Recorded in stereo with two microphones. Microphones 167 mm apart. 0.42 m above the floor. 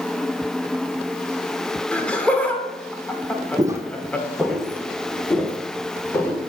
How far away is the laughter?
About 0.8 m.